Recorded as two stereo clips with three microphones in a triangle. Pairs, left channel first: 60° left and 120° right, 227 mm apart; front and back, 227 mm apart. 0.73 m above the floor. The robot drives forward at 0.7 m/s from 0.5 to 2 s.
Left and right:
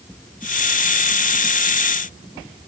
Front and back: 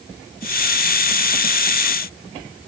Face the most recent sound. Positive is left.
No sound to turn to.